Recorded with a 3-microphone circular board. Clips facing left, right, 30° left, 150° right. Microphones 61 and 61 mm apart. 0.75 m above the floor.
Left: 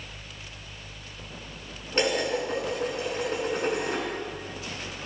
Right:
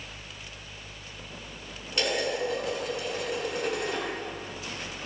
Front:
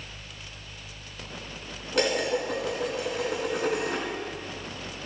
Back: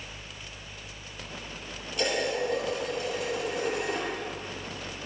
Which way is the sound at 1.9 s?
35° left.